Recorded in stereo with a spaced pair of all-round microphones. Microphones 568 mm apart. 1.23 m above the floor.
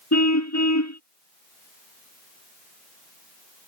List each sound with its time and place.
0.1 s a car horn: 30° left (ahead or behind)